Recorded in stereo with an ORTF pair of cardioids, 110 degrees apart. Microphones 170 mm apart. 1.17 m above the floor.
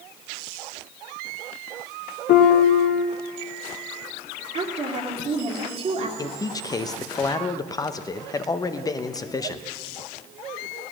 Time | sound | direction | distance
2.3 | a piano | 60° left | 1.1 m
4.5 | a woman speaking | 35° right | 1.9 m
6.2 | a man speaking | 20° left | 0.7 m